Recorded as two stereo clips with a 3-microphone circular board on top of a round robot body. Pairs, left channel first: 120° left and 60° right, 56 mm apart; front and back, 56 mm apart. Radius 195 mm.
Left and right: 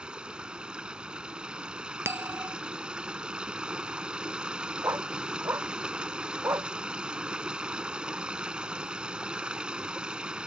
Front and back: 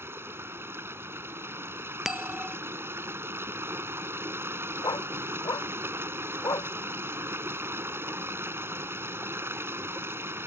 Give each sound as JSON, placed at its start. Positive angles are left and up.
{"t": 0.0, "sound": "running water", "azimuth_deg": -135}
{"t": 2.0, "sound": "a bell", "azimuth_deg": -95}
{"t": 4.8, "sound": "a dog barking", "azimuth_deg": -15}